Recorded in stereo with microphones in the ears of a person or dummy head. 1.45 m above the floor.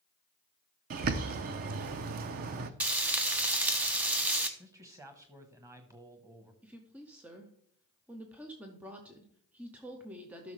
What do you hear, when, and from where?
0.9 s a bird: 50° right (ahead or behind), 0.6 m
2.8 s frying: 10° right (ahead or behind), 0.7 m
4.6 s a man speaking: 20° right (ahead or behind), 1.2 m
6.6 s a woman speaking: 10° right (ahead or behind), 0.7 m